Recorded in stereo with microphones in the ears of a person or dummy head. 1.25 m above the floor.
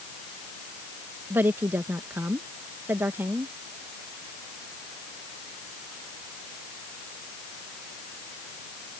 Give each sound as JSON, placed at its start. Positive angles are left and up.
{"t": 1.3, "sound": "a woman speaking", "side_deg": -10}